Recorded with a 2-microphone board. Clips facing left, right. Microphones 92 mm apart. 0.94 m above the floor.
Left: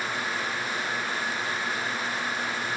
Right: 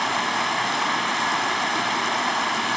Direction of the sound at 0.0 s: 70° right (ahead or behind).